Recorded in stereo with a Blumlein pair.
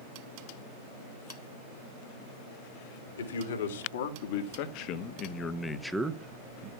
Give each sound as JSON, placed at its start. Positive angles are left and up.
{"t": 3.2, "sound": "a man speaking", "azimuth_deg": 65, "distance_m": 2.5}